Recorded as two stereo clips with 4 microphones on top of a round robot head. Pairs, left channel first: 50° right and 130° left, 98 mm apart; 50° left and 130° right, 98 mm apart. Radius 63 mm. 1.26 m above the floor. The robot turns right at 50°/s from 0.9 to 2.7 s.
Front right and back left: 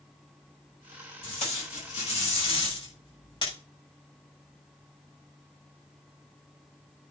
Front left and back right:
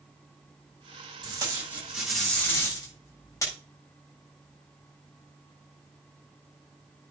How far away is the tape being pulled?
About 7.5 m.